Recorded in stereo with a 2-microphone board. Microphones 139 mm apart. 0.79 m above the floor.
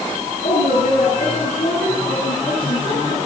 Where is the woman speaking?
80° left, 8.5 m.